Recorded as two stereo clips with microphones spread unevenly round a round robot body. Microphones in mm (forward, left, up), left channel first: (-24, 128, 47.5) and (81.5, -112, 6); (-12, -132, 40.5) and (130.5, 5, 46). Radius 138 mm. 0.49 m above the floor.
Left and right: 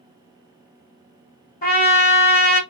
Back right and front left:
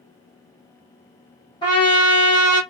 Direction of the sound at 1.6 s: 165° left.